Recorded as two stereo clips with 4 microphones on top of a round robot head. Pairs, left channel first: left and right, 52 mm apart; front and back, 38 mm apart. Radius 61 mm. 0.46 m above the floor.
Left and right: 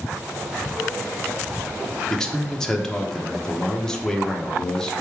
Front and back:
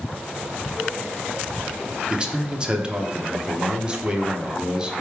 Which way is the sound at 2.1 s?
150° left.